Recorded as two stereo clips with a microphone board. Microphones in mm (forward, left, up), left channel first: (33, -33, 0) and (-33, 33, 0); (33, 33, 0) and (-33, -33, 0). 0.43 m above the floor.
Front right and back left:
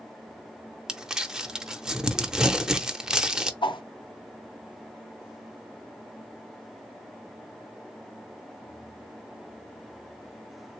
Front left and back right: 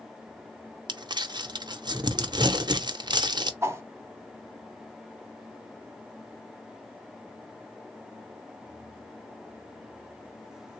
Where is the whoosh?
75° right, 0.7 m.